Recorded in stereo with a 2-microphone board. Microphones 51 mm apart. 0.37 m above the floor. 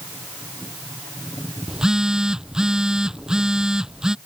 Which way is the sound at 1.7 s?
15° right (ahead or behind).